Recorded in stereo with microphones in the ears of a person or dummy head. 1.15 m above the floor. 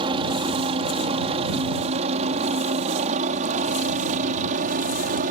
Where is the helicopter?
30° right (ahead or behind); by 5.3 s 45° right (ahead or behind).